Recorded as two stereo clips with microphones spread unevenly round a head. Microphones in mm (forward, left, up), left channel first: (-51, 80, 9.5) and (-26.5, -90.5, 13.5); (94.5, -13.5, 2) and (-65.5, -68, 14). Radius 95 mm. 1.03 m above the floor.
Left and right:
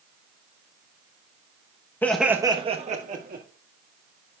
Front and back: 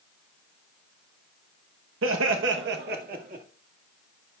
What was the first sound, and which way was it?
Laughter, 175° left.